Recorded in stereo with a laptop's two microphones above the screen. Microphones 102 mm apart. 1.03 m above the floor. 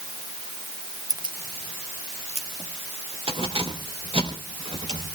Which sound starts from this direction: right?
Keys jangling, at 1.1 s.